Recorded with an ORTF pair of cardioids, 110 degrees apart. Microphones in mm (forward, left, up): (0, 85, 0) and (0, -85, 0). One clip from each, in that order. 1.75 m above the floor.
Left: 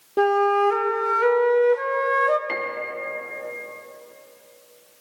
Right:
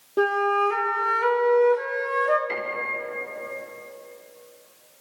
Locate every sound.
0.2 s a flute: 15° left, 1.1 m
2.5 s a piano: 45° left, 3 m